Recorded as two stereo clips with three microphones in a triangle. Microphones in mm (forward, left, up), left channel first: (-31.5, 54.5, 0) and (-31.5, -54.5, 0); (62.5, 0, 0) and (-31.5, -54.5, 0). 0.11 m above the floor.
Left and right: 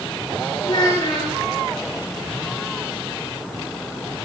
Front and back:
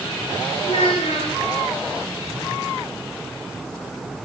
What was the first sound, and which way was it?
A child speaking, 45° left.